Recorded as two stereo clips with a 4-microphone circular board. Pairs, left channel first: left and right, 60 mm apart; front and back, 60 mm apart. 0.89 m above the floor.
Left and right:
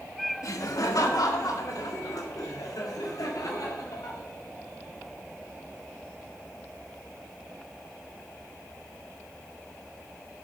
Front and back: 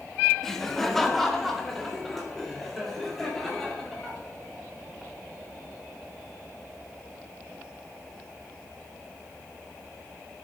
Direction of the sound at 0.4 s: 85° left.